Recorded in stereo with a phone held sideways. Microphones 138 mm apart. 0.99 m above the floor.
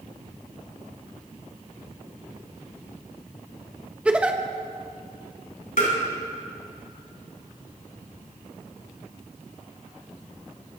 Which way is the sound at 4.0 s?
10° right (ahead or behind).